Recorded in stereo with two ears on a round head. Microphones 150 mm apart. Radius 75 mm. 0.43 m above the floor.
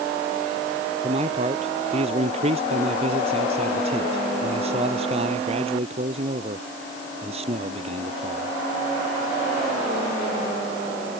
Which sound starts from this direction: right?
A man speaking, at 1.0 s.